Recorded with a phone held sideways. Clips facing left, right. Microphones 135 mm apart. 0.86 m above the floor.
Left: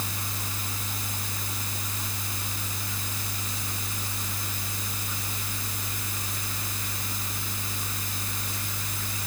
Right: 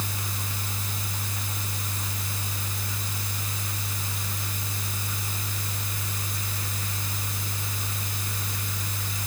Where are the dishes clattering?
No dishes clattering in this recording.